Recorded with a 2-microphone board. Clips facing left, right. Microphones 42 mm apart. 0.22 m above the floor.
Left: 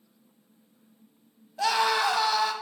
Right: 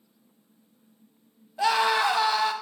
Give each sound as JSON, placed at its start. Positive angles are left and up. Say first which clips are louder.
{"t": 1.6, "sound": "a scream", "louder": "right 2 dB", "side_deg": -10, "distance_m": 1.0}